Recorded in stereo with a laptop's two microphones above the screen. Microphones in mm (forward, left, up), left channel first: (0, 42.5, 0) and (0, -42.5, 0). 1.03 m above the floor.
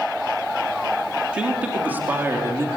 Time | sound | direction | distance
1.3 | a man speaking | 15° right (ahead or behind) | 2.5 m